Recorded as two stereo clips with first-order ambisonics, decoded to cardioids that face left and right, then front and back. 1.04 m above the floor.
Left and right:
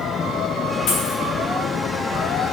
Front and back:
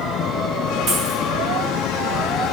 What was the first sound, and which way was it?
A dropped coin, 115° left.